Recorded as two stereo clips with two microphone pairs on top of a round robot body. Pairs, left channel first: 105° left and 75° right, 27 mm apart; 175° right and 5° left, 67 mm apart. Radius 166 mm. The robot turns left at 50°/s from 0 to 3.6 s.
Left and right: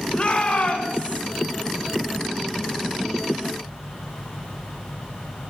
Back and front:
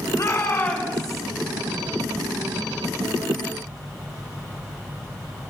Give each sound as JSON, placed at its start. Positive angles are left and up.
{"t": 0.1, "sound": "a shout", "azimuth_deg": 145, "distance_m": 5.0}